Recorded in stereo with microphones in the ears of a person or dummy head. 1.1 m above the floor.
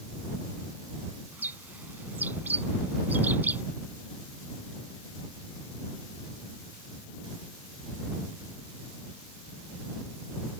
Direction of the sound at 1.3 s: 10° right (ahead or behind).